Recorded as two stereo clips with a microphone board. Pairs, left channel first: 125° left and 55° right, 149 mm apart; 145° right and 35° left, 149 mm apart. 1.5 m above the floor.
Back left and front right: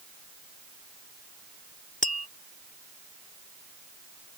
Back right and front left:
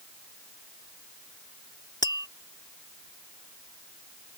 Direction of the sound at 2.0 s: 155° left.